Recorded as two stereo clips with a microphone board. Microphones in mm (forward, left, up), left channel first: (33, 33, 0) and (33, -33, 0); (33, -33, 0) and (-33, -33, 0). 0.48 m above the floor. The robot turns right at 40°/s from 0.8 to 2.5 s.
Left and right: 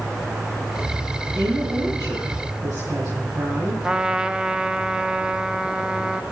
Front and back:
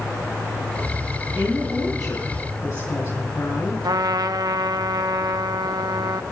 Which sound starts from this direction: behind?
A trumpet, at 3.8 s.